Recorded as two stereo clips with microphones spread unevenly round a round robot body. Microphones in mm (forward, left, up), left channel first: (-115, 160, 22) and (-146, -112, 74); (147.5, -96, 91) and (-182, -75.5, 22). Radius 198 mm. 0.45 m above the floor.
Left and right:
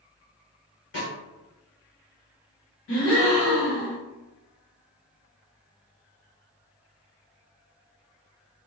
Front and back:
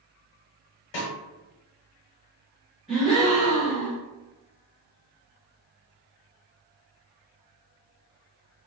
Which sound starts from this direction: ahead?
A snare drum, at 0.9 s.